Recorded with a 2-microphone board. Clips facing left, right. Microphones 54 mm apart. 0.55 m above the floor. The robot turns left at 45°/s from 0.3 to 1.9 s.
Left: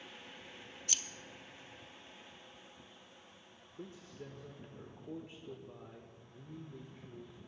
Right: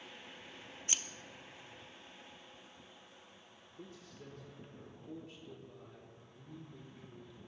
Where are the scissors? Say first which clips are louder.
Right 1 dB; 30° right (ahead or behind), 0.6 m; by 1.0 s 25° right (ahead or behind), 0.6 m.